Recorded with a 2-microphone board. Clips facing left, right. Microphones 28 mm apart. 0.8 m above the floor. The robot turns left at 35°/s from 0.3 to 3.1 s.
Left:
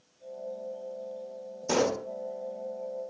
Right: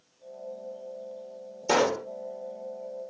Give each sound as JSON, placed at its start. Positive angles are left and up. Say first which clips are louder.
{"t": 1.7, "sound": "a pop", "louder": "right 3 dB", "side_deg": -55, "distance_m": 0.7}